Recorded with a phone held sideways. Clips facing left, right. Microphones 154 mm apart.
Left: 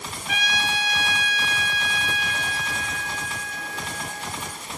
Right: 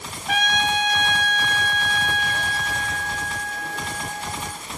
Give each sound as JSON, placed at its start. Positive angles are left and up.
{"t": 0.3, "sound": "a trumpet", "side_deg": -55, "distance_m": 1.0}